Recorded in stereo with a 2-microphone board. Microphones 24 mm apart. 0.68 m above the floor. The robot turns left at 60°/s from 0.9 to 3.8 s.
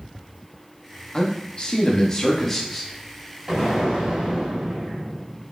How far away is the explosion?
About 1.6 m.